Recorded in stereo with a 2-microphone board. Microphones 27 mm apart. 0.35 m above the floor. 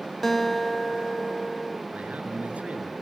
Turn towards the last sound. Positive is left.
turn(degrees=-65)  # may be behind; listen again after turning